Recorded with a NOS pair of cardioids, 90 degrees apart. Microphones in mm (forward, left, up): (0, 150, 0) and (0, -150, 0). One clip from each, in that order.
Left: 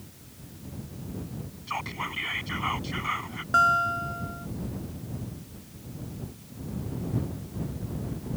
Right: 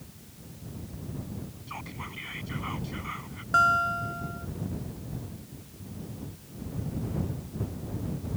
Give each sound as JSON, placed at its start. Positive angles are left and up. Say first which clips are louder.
{"t": 1.7, "sound": "whispering", "louder": "left 9 dB", "azimuth_deg": 55}
{"t": 3.5, "sound": "a guitar", "louder": "left 1 dB", "azimuth_deg": 0}